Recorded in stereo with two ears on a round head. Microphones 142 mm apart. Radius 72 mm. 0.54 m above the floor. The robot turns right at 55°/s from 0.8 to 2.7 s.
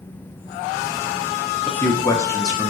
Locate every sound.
1.7 s a man speaking: 10° left (ahead or behind), 0.6 m; by 2.7 s 25° left (ahead or behind), 0.6 m